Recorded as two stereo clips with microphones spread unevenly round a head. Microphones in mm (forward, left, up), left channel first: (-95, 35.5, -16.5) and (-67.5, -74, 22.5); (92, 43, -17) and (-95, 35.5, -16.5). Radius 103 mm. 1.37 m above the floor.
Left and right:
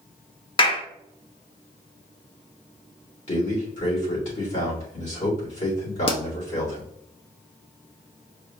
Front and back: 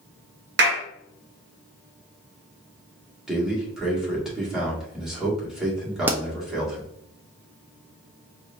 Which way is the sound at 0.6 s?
155° left.